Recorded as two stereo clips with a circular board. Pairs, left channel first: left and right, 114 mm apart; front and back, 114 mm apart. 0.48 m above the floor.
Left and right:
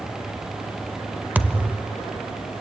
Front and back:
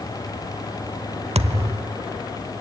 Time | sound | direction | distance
1.4 | a thud | 165° right | 0.8 m